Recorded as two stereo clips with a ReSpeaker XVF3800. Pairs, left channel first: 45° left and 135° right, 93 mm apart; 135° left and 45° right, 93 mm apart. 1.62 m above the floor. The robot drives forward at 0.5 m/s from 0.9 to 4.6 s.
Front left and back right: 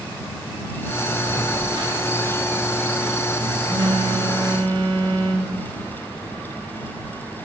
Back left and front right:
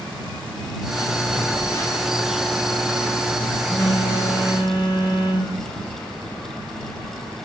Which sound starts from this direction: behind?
A phone buzzing, at 1.3 s.